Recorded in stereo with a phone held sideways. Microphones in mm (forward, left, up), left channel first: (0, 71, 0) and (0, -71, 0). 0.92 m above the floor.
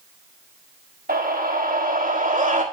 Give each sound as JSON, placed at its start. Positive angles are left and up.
{"t": 1.1, "sound": "a scream", "side_deg": -75, "distance_m": 1.5}